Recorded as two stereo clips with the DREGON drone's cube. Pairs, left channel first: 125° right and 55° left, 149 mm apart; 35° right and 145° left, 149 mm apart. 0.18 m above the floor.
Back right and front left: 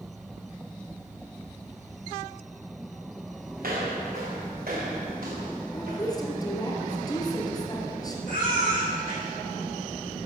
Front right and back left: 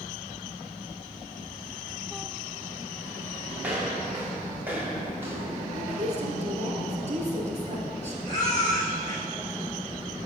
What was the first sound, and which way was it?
Footsteps, 65° left.